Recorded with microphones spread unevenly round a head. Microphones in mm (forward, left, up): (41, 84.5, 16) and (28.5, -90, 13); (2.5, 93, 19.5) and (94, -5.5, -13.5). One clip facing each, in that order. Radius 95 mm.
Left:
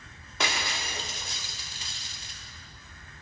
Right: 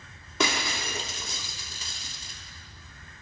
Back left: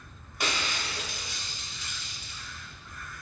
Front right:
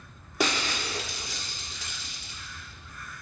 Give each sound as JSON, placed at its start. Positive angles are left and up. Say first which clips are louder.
{"t": 0.4, "sound": "breaking glass", "louder": "right 4 dB, front right 4 dB", "azimuth_deg": -100, "distance_m": 1.2}